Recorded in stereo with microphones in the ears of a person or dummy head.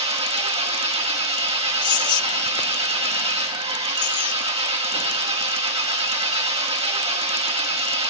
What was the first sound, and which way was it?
An engine running, 30° right (ahead or behind).